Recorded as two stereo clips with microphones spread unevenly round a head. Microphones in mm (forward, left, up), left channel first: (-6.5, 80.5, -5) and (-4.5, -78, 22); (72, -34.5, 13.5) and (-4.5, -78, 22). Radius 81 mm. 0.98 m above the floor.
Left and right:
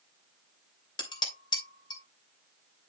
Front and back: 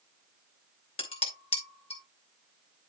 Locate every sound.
1.0 s dishes clattering: 25° left, 3 m